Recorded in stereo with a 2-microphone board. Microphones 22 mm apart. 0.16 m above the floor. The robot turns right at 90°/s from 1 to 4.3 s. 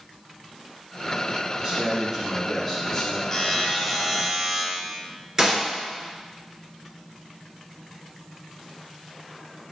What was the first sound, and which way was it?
A man speaking, 100° right.